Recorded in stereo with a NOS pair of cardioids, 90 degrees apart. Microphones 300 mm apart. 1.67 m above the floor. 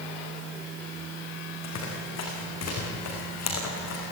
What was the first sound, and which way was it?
Running footsteps, 60° left.